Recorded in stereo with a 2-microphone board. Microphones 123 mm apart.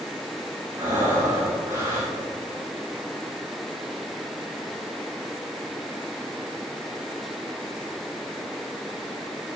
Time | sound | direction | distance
0.8 | breathing | 35° right (ahead or behind) | 4 m